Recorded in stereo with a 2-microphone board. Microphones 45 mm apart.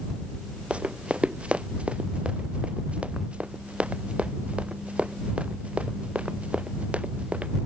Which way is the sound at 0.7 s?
25° right (ahead or behind).